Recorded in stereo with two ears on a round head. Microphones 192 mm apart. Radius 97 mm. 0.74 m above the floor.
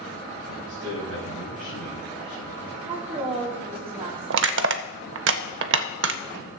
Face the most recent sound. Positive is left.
turn(degrees=-60)  # may be behind; listen again after turning